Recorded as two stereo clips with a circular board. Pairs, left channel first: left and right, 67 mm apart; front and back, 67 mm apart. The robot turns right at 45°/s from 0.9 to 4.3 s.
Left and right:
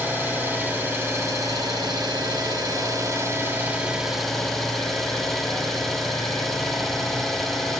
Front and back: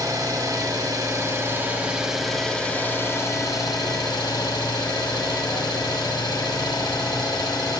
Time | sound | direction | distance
0.0 | an engine running | 150° right | 1.1 m